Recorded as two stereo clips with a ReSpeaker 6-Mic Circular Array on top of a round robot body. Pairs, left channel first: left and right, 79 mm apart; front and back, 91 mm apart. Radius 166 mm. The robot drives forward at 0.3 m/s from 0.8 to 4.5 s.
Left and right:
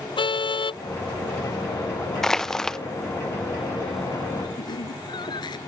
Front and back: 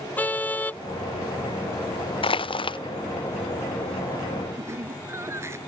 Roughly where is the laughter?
Behind left.